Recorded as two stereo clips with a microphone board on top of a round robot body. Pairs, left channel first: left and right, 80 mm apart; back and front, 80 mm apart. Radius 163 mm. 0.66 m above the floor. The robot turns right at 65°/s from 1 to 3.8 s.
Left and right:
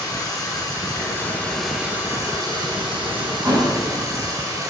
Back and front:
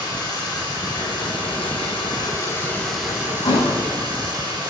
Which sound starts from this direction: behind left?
Running water, at 0.0 s.